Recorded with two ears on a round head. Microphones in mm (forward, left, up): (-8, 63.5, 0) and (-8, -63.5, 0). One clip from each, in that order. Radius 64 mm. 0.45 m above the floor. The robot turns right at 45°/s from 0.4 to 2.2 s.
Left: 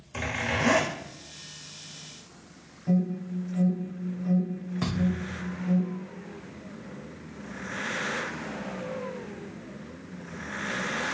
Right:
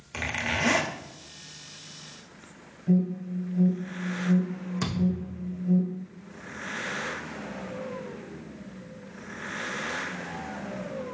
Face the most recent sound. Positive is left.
turn(degrees=-65)  # may be behind; listen again after turning